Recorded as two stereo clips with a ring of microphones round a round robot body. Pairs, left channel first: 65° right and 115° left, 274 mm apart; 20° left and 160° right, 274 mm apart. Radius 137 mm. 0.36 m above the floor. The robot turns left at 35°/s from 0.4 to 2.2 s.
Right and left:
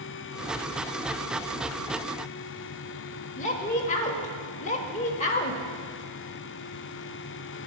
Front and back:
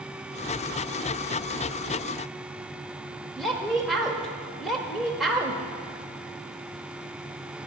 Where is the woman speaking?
65° right, 0.8 m.